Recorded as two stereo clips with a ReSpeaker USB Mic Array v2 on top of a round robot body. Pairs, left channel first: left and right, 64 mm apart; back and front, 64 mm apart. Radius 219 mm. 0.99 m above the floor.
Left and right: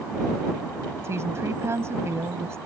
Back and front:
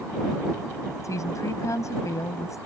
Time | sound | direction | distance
1.0 | a woman speaking | 140° right | ?